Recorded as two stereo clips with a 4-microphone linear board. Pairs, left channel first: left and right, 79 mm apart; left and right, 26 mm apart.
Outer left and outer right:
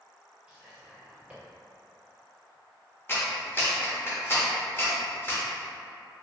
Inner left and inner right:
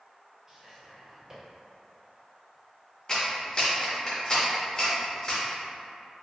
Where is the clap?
30° left (ahead or behind), 1.0 m.